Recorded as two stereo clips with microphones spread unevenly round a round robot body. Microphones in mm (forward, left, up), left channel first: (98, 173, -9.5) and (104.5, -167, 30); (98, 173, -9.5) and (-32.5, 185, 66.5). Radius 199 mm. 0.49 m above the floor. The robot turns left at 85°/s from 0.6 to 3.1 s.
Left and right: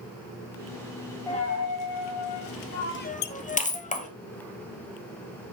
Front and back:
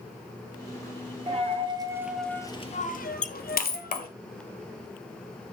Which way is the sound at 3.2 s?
45° left.